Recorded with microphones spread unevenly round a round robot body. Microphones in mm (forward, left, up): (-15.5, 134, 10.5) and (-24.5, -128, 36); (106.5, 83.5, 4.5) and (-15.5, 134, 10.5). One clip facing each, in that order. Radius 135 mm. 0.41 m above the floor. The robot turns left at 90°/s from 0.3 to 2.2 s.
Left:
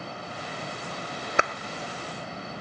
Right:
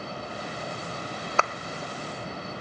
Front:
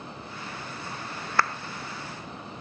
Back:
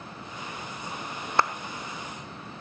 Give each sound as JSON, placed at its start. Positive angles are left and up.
{"t": 1.4, "sound": "a clap", "azimuth_deg": 115, "distance_m": 0.8}